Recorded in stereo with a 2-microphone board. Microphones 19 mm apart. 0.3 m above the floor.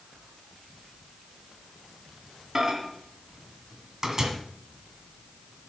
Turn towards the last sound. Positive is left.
turn(degrees=-30)  # may be behind; listen again after turning